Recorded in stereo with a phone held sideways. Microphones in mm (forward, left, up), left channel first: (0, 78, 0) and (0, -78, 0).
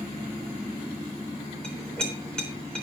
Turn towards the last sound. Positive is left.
turn(degrees=5)  # may be behind; listen again after turning